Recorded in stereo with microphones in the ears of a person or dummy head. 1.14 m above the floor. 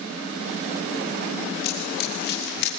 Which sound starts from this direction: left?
Running footsteps, at 1.6 s.